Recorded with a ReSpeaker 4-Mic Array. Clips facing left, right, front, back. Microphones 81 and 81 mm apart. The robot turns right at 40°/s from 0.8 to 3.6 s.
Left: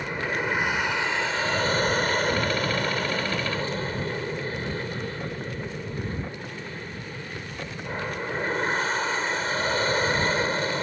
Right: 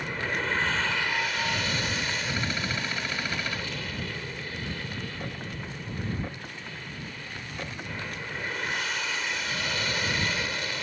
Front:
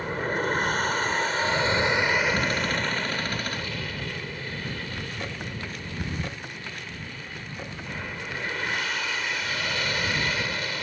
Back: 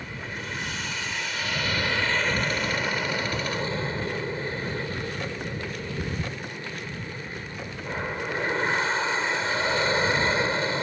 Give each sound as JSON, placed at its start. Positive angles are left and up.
{"t": 0.0, "sound": "an aircraft", "azimuth_deg": 20}